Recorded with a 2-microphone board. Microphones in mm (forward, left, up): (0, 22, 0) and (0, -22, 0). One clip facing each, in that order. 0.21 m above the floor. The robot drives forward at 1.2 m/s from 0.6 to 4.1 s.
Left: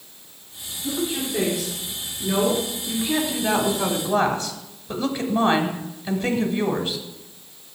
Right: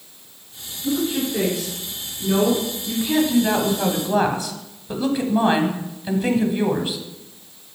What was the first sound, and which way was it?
A woman speaking, centre (ahead or behind).